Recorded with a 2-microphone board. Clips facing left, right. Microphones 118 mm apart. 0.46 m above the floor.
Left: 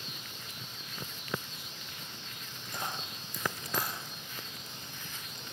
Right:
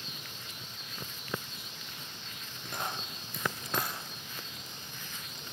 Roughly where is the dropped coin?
Right.